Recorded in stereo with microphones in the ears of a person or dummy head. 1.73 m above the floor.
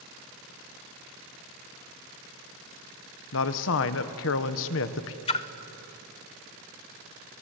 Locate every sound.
3.3 s a man speaking: 70° left (ahead or behind), 1.3 m
5.3 s a splash: 25° left (ahead or behind), 0.8 m